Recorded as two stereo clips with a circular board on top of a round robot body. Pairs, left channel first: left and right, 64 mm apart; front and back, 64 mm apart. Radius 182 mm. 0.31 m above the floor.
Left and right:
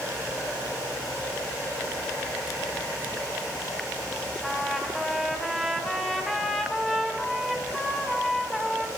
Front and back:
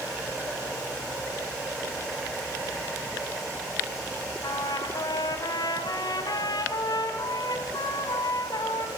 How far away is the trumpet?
About 3.5 m.